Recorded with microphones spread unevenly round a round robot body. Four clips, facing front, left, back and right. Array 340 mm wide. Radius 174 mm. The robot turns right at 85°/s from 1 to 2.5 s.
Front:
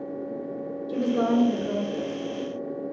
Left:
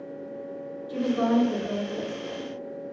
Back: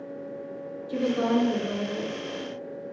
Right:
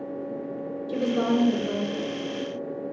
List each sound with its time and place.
0.9 s a woman speaking: 65° right, 1.4 m; by 2.5 s 65° left, 1.4 m